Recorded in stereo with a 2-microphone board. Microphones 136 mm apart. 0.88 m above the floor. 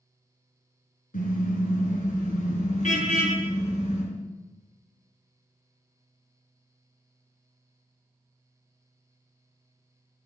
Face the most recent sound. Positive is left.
turn(degrees=55)  # may be behind; listen again after turning